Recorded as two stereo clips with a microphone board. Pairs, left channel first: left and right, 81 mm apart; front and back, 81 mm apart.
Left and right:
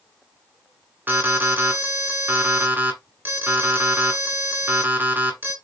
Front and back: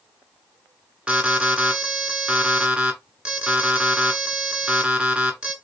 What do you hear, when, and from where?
1.1 s an alarm: 115° right, 2.5 m